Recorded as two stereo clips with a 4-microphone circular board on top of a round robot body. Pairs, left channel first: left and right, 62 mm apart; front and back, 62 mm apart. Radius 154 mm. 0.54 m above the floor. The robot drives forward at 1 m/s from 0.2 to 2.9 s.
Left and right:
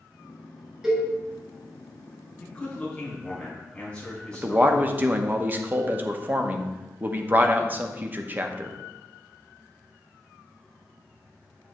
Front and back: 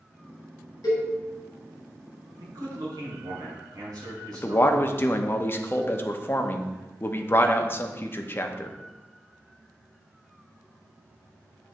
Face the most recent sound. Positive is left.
turn(degrees=-40)